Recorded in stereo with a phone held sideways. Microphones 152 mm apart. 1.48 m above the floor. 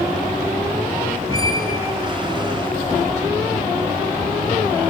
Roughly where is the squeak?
Right.